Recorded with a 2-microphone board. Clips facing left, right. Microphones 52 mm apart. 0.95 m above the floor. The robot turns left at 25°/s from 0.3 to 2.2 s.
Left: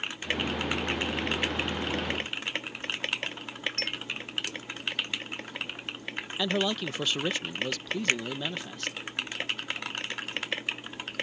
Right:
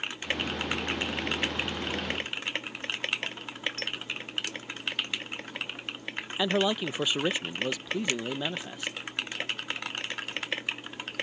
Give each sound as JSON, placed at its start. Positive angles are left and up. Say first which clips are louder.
{"t": 3.8, "sound": "a clink", "louder": "left 1 dB", "side_deg": 55}
{"t": 6.4, "sound": "a man speaking", "louder": "right 2 dB", "side_deg": -10}
{"t": 8.1, "sound": "a finger snap", "louder": "left 6 dB", "side_deg": 40}